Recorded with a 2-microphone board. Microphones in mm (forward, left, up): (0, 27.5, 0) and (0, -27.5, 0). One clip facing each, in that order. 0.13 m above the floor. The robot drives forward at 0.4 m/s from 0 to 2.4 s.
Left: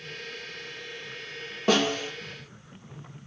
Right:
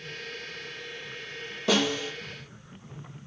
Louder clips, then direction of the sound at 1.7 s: Left 2 dB; 45° left (ahead or behind).